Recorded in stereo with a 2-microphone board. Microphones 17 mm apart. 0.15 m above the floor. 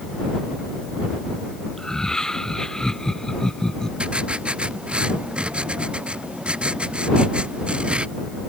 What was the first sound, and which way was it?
Laughter, 35° left (ahead or behind).